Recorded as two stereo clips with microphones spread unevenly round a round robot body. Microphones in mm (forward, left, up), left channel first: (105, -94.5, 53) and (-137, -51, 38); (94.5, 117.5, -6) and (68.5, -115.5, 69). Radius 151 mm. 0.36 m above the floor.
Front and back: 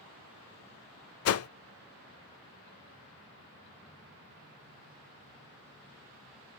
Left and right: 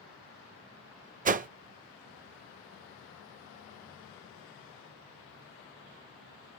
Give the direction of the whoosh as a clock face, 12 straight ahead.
1 o'clock.